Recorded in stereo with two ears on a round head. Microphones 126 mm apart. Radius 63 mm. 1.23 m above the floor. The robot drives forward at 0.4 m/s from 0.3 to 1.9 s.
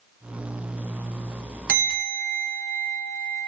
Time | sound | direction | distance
1.7 | a bell | 65° right (ahead or behind) | 0.8 m